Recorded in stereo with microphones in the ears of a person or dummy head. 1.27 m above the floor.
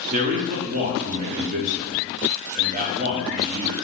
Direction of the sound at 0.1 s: 35° right (ahead or behind).